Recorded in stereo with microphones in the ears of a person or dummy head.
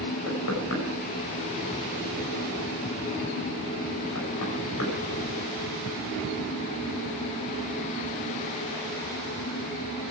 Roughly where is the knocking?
Left.